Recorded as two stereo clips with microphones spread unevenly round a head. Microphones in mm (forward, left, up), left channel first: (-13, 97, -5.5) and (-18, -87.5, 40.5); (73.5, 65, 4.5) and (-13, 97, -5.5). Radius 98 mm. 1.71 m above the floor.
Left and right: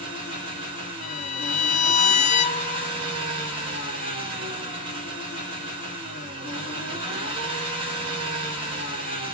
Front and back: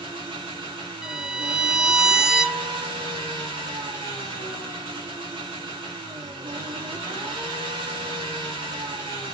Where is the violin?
75° left, 0.5 m.